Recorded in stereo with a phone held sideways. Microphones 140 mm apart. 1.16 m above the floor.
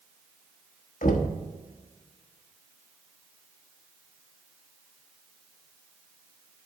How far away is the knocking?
About 1.2 m.